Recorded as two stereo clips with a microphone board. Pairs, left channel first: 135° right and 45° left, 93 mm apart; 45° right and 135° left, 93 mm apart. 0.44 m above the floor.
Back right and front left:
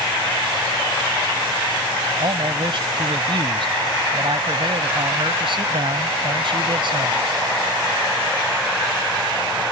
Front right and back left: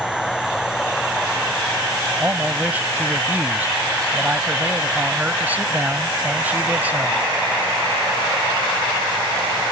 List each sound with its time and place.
2.2 s a man speaking: 65° left